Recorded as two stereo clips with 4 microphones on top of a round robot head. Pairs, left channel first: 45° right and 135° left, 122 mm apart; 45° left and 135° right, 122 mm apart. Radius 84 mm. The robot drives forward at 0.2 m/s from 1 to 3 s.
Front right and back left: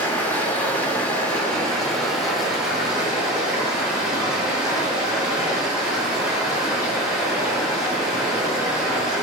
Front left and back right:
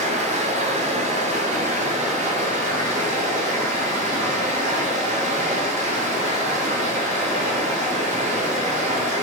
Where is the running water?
125° right, 0.8 m; by 9.2 s 145° right, 1.1 m.